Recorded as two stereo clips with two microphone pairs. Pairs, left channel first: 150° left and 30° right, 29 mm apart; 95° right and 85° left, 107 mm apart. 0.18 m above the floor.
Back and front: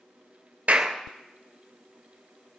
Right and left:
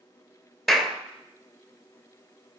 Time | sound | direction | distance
0.7 | a clap | 5° right | 2.5 m